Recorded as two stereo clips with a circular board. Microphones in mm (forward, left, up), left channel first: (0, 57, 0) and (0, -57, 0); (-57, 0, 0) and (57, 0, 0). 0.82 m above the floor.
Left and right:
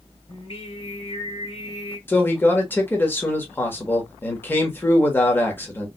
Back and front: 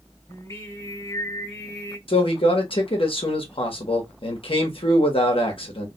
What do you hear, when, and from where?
0.3 s singing: 115° left, 2 m
2.1 s a man speaking: 160° left, 1.3 m